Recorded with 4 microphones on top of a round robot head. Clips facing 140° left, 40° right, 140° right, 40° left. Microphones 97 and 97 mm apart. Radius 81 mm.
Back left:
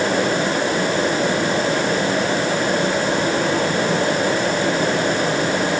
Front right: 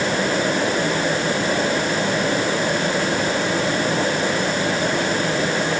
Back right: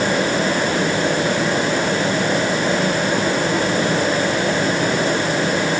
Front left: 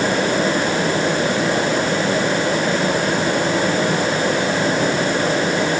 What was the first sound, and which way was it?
Only background noise.